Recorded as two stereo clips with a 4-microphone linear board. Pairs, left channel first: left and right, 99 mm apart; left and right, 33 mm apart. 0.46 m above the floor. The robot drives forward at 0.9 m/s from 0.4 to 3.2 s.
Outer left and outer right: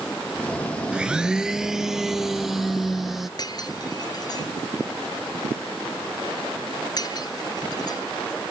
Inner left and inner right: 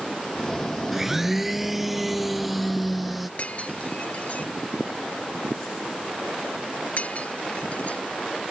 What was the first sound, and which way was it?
A blender, 10° right (ahead or behind).